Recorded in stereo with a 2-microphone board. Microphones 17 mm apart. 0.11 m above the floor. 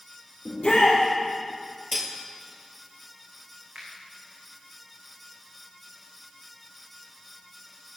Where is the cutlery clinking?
5° right (ahead or behind), 1.6 m.